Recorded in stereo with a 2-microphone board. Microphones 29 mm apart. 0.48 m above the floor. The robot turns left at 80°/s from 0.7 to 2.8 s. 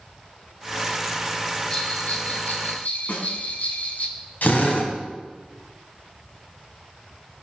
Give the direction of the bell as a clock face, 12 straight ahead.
7 o'clock.